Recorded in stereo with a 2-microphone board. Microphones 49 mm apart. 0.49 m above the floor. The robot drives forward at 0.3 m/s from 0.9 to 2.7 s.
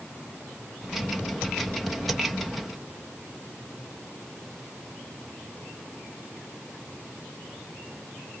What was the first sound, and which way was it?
Only background noise.